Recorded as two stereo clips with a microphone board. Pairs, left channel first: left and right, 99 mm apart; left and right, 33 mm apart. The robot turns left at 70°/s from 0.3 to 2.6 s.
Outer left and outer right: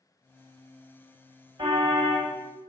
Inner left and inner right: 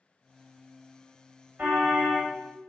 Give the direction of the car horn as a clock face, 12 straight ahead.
4 o'clock.